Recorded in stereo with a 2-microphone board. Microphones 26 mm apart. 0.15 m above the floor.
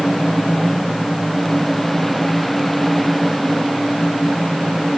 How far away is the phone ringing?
I don't hear a phone ringing.